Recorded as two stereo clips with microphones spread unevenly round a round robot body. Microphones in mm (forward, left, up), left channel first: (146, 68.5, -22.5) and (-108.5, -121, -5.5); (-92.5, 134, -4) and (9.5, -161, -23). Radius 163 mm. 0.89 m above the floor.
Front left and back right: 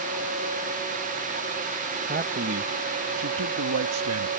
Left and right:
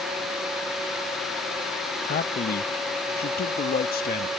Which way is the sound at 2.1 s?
160° left.